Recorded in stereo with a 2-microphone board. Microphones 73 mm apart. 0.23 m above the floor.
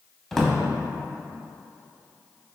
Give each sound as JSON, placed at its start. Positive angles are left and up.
{"t": 0.3, "sound": "a drawer", "side_deg": 5, "distance_m": 0.7}